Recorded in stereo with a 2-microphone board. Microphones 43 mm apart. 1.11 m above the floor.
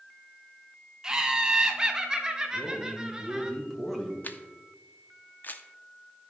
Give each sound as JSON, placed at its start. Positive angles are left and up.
{"t": 1.0, "sound": "laughter", "side_deg": -15, "distance_m": 1.3}
{"t": 2.5, "sound": "a man speaking", "side_deg": 5, "distance_m": 1.8}
{"t": 4.2, "sound": "a camera shutter", "side_deg": 45, "distance_m": 0.7}